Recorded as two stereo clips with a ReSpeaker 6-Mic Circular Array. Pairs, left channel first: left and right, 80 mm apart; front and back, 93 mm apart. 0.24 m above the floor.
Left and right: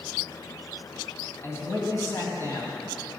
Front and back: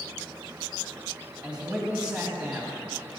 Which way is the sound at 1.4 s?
110° left.